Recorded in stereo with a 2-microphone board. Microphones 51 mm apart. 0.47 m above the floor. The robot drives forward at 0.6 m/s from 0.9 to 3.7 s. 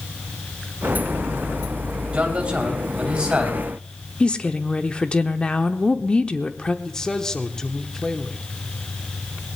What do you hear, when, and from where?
2.1 s a man speaking: 25° right (ahead or behind), 2.5 m; by 3.6 s 20° right (ahead or behind), 3.5 m
4.2 s a woman speaking: 20° left (ahead or behind), 0.8 m
6.8 s a man speaking: 15° left (ahead or behind), 1.0 m